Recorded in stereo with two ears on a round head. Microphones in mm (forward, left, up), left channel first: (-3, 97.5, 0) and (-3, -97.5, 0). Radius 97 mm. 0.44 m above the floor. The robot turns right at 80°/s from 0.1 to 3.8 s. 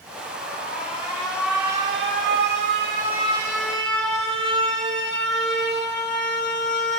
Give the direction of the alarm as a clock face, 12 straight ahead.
10 o'clock.